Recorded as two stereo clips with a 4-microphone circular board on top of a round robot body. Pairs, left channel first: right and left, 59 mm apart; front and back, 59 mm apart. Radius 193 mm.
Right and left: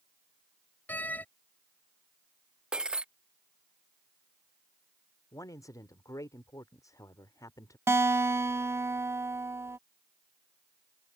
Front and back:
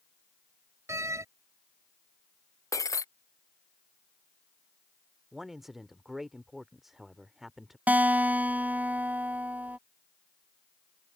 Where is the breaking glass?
15° left.